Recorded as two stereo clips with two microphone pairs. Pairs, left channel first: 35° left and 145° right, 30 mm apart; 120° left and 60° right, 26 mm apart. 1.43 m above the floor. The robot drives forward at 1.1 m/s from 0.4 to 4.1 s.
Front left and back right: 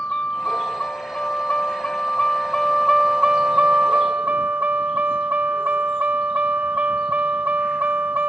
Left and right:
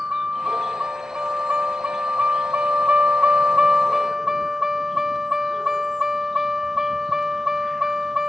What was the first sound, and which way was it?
A vehicle, 15° right.